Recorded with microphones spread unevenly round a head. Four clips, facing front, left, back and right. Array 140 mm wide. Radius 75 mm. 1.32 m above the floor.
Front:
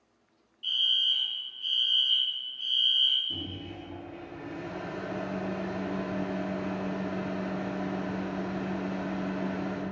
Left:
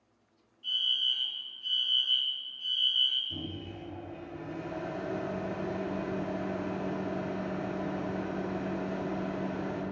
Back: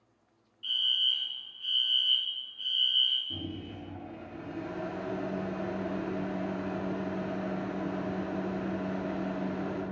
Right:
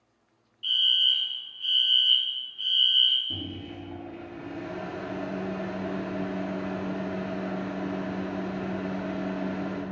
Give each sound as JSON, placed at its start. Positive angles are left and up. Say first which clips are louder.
{"t": 0.6, "sound": "a fire alarm", "louder": "right 7 dB, front 2 dB", "azimuth_deg": -85, "distance_m": 1.4}
{"t": 3.3, "sound": "a microwave", "louder": "right 3 dB, even", "azimuth_deg": -75, "distance_m": 2.0}